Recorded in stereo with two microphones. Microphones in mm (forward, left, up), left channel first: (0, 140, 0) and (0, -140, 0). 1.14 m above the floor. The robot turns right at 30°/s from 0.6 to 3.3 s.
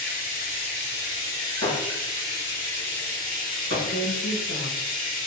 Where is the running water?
35° left, 1.4 m; by 5.3 s 115° left, 1.4 m.